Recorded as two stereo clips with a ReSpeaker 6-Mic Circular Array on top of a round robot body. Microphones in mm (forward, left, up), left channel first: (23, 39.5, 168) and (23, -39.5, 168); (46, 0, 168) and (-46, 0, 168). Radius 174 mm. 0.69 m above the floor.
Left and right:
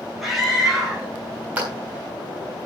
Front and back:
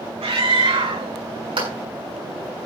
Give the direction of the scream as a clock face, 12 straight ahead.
6 o'clock.